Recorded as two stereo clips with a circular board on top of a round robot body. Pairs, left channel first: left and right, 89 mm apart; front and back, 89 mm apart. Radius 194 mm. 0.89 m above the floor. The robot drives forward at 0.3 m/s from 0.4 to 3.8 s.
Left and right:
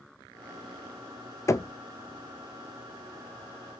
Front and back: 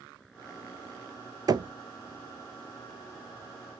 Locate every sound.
1.5 s knocking: 145° left, 0.6 m